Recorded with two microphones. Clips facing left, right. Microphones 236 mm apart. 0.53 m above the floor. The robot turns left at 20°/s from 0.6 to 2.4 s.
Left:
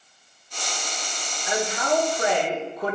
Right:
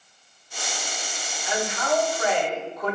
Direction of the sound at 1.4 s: 40° left (ahead or behind).